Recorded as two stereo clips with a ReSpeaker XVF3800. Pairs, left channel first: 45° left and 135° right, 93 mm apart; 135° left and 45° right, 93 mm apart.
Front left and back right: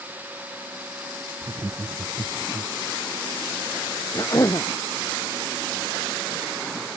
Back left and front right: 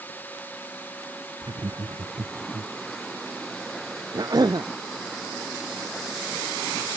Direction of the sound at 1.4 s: 85° right.